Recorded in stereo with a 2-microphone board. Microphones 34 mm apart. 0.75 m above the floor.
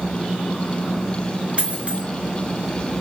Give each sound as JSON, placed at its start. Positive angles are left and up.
{"t": 1.6, "sound": "a dropped coin", "side_deg": -40, "distance_m": 1.7}